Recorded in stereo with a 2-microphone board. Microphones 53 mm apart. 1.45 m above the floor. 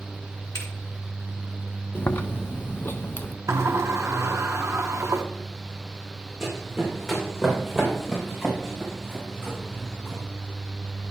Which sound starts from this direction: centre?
Running footsteps, at 6.4 s.